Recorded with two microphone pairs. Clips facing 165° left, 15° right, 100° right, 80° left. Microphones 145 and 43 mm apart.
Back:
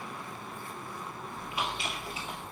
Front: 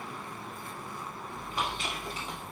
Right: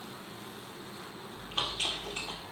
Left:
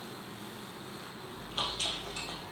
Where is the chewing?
55° right, 1.9 m.